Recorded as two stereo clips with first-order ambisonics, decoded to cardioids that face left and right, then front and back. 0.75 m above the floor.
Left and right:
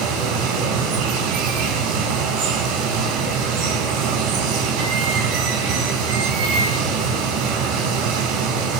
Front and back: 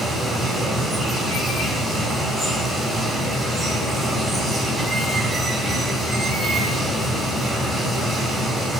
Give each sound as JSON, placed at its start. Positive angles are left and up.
{"t": 0.0, "sound": "running water", "azimuth_deg": -105, "distance_m": 4.5}